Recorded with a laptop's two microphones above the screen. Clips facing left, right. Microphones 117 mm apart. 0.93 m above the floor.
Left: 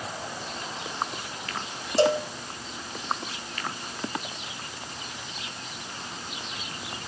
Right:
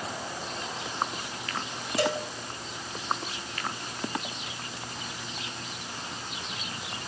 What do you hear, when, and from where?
2.0 s a cowbell: 30° left (ahead or behind), 1.5 m